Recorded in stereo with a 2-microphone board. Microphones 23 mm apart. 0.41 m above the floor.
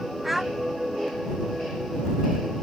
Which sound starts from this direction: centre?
A child speaking, at 0.2 s.